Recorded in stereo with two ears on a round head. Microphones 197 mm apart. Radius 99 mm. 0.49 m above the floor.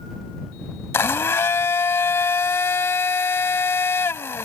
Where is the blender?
10° left (ahead or behind).